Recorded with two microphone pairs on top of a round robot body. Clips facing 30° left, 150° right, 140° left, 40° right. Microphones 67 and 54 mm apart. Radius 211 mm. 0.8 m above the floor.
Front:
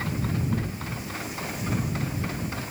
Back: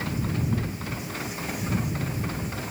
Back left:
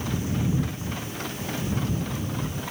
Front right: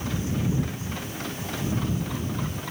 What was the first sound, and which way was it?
Only background noise.